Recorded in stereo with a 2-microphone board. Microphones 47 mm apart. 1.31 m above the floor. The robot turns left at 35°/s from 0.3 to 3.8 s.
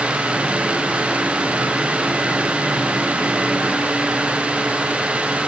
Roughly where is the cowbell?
I don't hear a cowbell.